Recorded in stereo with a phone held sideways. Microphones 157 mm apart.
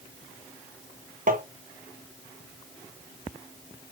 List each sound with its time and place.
1.3 s tapping: 60° right (ahead or behind), 0.6 m